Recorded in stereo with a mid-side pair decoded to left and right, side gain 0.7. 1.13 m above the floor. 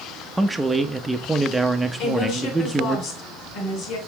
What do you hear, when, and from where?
0.4 s a man speaking: 5° right, 0.9 m
2.0 s a woman speaking: 55° left, 2.5 m